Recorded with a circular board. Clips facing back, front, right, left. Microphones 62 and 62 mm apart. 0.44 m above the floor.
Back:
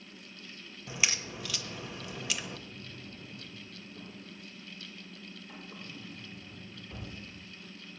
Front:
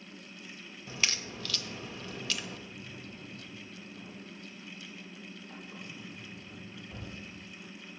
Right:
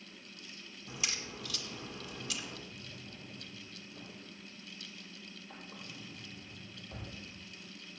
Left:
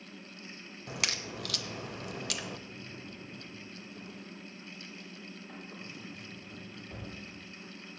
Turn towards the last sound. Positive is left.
turn(degrees=110)